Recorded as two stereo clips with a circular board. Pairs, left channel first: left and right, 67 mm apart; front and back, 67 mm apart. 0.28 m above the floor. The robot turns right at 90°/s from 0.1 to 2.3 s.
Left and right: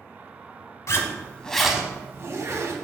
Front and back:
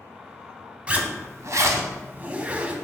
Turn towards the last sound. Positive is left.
turn(degrees=-120)